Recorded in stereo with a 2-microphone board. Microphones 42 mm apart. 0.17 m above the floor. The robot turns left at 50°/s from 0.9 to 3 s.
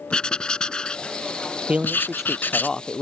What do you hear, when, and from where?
0.1 s writing: 150° left; by 2.7 s 65° left
1.7 s a man speaking: 145° right; by 3.0 s 150° left